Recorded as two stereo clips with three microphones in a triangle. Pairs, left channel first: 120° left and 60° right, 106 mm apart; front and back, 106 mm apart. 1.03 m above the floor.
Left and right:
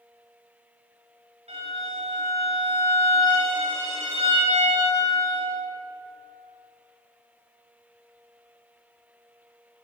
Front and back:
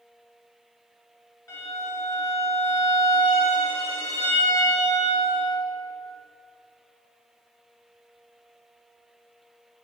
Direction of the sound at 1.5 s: 60° right.